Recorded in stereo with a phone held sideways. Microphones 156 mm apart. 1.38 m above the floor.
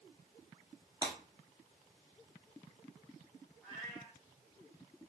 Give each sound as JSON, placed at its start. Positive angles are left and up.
{"t": 1.0, "sound": "breaking glass", "side_deg": -30, "distance_m": 1.4}
{"t": 3.6, "sound": "a cat meowing", "side_deg": -5, "distance_m": 2.5}